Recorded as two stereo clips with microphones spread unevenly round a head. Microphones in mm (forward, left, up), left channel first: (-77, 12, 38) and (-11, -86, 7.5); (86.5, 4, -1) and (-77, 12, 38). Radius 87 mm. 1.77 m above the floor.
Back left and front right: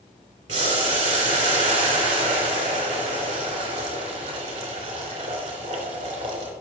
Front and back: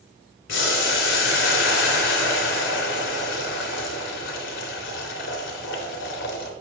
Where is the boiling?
15° right, 3 m.